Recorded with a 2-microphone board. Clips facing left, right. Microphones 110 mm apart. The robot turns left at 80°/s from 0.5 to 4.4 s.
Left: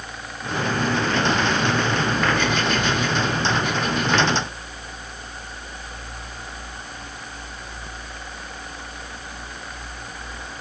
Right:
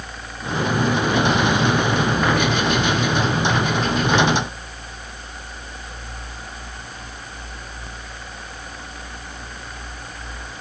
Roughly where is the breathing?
No breathing in this recording.